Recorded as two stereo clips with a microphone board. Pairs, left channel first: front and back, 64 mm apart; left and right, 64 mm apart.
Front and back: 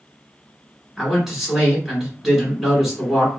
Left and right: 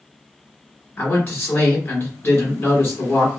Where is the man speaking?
95° left, 1.7 m.